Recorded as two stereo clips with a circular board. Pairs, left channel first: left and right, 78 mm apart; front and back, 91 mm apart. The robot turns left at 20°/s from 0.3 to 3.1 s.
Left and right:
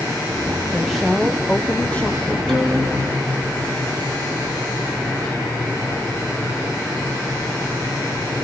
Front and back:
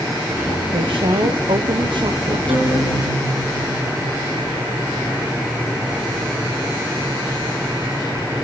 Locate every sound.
0.7 s a woman speaking: 175° right, 0.9 m; by 2.4 s 150° left, 0.9 m
2.5 s a guitar: 175° left, 6 m; by 4.5 s 165° left, 6 m